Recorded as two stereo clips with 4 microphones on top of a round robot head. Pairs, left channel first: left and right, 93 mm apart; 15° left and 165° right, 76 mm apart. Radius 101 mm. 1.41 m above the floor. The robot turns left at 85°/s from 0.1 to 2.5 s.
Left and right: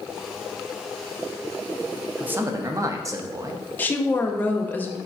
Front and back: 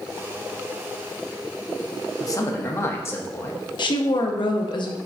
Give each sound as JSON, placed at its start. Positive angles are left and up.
{"t": 2.2, "sound": "a man speaking", "azimuth_deg": -10, "distance_m": 0.8}
{"t": 3.8, "sound": "a woman speaking", "azimuth_deg": 20, "distance_m": 0.8}